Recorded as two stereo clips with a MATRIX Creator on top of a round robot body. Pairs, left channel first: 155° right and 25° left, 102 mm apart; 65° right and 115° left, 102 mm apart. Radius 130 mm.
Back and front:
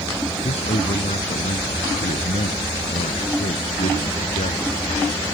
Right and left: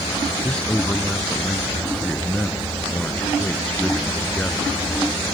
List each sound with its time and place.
0.4 s a man speaking: 150° right